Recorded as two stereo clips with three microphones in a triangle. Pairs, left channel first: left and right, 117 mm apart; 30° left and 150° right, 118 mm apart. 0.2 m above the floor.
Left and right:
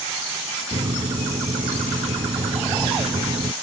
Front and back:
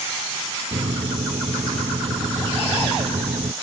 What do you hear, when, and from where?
0.7 s a microwave: 115° right